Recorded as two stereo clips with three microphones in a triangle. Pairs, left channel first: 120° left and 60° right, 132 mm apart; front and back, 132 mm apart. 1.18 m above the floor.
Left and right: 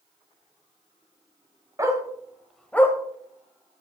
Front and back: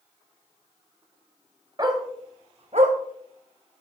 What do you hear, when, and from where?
1.8 s a dog barking: 120° right, 2 m; by 3.0 s 175° right, 1.5 m